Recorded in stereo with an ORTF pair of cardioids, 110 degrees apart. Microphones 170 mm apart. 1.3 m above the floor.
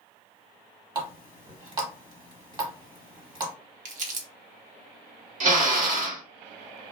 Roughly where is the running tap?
Ahead right.